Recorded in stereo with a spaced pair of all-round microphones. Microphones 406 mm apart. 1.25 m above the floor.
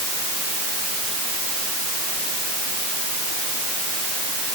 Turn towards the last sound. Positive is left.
No sound to turn to.